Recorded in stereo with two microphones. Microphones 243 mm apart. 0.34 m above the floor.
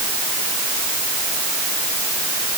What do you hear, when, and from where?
Only background noise.